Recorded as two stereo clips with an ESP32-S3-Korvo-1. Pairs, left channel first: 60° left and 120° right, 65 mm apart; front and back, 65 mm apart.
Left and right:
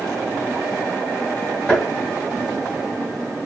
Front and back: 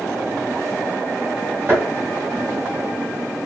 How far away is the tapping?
About 2.5 m.